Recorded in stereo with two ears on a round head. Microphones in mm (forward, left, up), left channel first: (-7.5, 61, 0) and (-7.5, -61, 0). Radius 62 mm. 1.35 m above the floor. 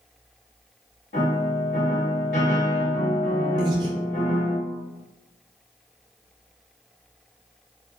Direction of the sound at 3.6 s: 30° right (ahead or behind).